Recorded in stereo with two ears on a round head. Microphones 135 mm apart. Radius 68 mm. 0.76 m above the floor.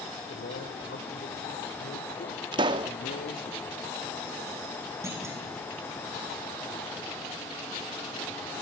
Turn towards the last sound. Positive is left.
turn(degrees=-20)  # may be behind; listen again after turning